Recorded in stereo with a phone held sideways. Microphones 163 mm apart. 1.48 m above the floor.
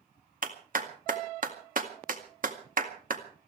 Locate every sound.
0.4 s a clap: 55° right (ahead or behind), 1.9 m